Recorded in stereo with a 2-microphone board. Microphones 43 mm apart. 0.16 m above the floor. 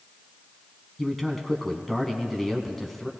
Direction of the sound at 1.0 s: 5° left (ahead or behind).